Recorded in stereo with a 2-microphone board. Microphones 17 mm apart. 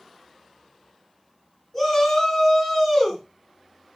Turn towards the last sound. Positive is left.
turn(degrees=30)  # may be behind; listen again after turning